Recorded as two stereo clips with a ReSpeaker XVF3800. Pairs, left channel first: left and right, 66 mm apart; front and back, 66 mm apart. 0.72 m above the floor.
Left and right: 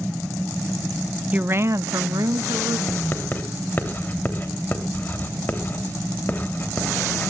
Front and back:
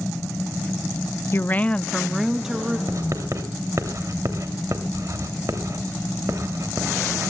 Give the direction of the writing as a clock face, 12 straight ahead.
7 o'clock.